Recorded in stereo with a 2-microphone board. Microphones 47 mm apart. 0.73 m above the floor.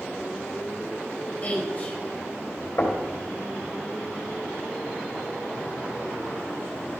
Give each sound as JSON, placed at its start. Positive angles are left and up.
{"t": 1.4, "sound": "a woman speaking", "side_deg": 30, "distance_m": 4.5}
{"t": 2.8, "sound": "knocking", "side_deg": 55, "distance_m": 3.0}